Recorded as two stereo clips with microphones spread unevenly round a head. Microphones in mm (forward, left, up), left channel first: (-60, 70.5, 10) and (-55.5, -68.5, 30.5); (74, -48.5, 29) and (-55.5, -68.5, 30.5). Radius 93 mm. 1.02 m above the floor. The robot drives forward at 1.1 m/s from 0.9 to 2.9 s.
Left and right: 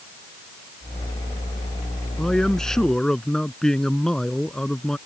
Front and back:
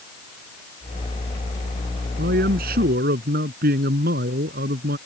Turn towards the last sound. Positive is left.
turn(degrees=180)